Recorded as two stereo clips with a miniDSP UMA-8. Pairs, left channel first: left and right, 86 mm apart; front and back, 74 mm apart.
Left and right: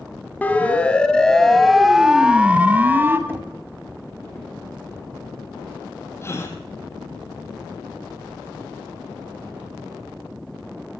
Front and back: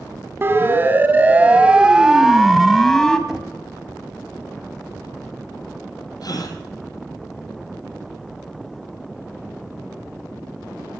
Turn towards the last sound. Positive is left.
turn(degrees=30)